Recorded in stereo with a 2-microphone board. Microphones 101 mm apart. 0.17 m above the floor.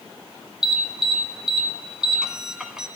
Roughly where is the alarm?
Centre.